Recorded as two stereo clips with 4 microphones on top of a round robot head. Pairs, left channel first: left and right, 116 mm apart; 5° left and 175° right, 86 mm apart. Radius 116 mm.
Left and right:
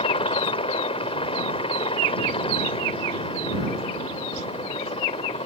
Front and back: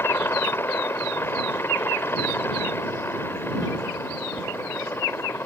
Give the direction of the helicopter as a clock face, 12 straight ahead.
10 o'clock.